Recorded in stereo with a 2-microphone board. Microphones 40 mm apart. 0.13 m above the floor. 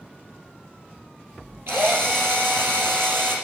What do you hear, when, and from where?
1.7 s a drill: 65° right (ahead or behind), 3.5 m